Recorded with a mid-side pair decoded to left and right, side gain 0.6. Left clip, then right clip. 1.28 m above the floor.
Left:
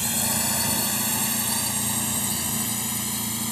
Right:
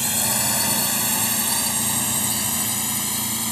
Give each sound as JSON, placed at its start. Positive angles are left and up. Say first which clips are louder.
{"t": 0.0, "sound": "a drone", "louder": "right 3 dB", "azimuth_deg": -15}